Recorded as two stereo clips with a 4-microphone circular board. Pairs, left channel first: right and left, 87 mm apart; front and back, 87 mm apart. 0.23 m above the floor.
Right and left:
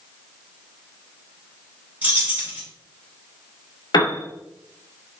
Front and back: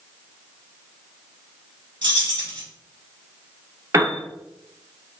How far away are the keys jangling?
About 2.0 m.